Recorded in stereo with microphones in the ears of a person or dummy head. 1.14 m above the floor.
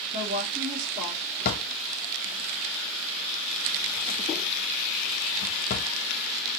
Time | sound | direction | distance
0.1 | a woman speaking | 60° right (ahead or behind) | 1.6 m
1.4 | a drawer | 55° left (ahead or behind) | 0.6 m